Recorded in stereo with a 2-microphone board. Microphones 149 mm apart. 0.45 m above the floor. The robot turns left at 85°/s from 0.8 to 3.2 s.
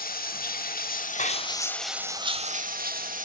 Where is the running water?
90° left, 0.8 m; by 3.2 s 115° right, 0.8 m.